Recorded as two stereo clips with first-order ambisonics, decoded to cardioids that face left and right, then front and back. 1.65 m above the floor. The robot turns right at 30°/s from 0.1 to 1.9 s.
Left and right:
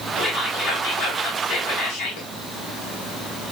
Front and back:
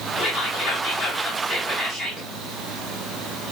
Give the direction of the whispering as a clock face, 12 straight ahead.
11 o'clock.